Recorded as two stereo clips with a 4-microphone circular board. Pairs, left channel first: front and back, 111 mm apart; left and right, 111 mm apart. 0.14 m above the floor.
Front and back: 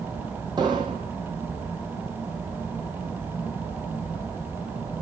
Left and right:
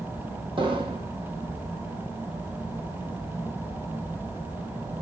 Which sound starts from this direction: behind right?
An explosion, at 0.6 s.